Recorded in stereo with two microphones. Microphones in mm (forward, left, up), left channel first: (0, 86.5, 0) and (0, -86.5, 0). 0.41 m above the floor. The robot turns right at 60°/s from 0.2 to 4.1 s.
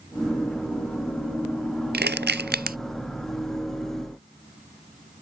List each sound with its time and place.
1.9 s crushing: 70° right (ahead or behind); by 2.8 s 55° right (ahead or behind)